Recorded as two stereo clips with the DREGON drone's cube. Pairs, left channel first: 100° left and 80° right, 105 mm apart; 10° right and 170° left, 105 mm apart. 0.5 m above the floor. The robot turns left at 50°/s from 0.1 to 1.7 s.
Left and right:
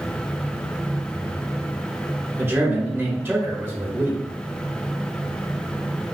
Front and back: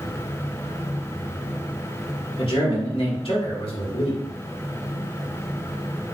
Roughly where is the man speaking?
Ahead.